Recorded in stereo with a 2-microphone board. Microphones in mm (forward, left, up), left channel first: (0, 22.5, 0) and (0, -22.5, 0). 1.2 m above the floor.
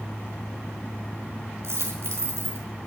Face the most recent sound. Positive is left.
turn(degrees=-75)  # may be behind; listen again after turning